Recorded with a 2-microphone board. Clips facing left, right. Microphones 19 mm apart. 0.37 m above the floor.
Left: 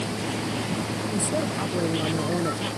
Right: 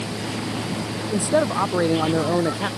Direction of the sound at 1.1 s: 55° right (ahead or behind).